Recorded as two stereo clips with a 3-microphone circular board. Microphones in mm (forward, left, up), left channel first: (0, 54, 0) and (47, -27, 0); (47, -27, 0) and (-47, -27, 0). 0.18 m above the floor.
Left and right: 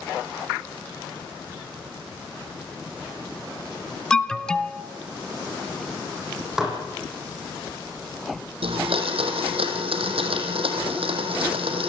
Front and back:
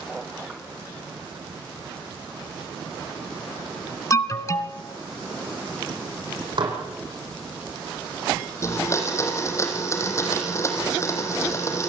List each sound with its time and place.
4.1 s an alarm: 40° left, 1.0 m
6.6 s dishes clattering: 145° right, 6 m
8.6 s a blender: 60° right, 4 m